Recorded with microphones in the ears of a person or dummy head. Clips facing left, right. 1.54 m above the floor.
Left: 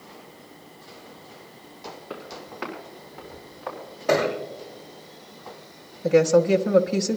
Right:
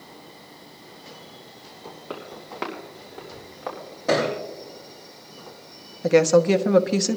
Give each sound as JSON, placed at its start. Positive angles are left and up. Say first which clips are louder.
{"t": 2.1, "sound": "footsteps", "louder": "right 3 dB", "side_deg": -70, "distance_m": 5.0}
{"t": 4.1, "sound": "a thud", "louder": "even", "side_deg": -75, "distance_m": 8.5}
{"t": 6.0, "sound": "a woman speaking", "louder": "right 1 dB", "side_deg": -75, "distance_m": 1.1}